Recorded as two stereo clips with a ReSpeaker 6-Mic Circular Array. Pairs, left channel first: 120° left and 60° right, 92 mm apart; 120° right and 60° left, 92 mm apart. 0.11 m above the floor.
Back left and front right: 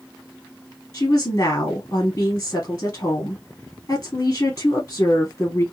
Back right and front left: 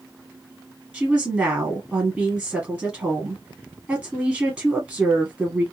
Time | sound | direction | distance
0.9 | a woman speaking | 135° left | 1.5 m